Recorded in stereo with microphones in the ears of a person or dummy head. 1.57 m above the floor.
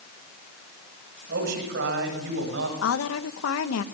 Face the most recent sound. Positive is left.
turn(degrees=80)